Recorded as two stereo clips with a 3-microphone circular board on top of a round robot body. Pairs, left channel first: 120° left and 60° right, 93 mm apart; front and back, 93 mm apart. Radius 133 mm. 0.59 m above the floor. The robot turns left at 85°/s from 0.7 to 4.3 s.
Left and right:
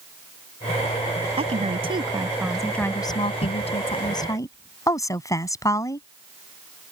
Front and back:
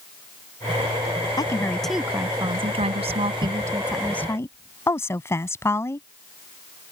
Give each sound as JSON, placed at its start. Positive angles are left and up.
{"t": 1.4, "sound": "a woman speaking", "azimuth_deg": -45}